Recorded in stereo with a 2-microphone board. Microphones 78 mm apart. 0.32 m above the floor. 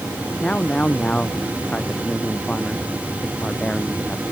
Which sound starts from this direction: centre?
A man speaking, at 0.4 s.